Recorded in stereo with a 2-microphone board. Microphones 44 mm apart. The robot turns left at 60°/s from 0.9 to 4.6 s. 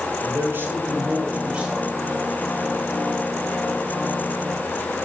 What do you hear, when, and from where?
0.2 s a man speaking: 95° right, 1.5 m; by 1.9 s 155° right, 1.5 m